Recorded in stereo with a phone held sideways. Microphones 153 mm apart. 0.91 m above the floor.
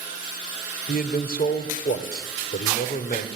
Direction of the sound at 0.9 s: 80° left.